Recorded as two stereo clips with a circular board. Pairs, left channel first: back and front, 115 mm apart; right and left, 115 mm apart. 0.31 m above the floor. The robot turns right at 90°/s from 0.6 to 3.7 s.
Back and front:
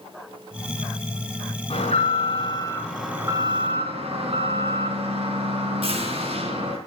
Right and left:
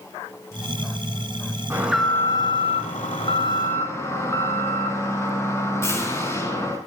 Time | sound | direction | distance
1.7 | an alarm | 155° left | 4 m